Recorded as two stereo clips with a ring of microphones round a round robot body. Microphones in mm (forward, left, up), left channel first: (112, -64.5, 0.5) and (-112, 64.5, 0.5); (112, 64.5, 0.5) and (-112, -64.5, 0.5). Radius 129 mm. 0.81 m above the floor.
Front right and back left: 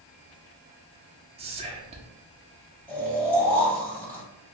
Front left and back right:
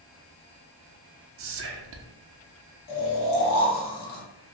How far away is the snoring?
About 0.9 m.